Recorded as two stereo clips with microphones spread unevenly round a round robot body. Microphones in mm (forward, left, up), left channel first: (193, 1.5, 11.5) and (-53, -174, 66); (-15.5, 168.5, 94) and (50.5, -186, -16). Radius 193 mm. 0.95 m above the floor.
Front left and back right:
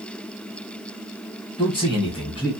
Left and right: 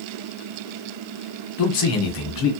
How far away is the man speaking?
About 0.9 m.